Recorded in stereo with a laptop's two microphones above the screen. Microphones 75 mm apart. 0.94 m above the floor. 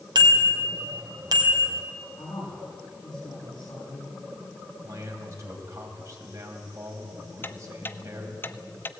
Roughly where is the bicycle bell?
Right.